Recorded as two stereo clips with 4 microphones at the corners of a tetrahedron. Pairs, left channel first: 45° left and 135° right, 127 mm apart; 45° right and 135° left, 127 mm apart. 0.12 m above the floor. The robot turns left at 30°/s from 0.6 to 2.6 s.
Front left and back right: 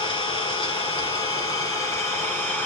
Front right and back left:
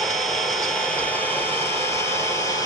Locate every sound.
0.0 s an engine running: 40° left, 1.6 m; by 2.7 s 20° right, 1.6 m